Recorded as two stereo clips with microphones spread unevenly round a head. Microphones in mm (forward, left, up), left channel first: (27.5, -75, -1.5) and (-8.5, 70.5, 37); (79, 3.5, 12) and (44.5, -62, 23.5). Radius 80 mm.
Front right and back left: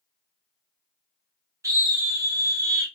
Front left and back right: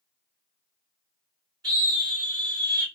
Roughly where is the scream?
Behind.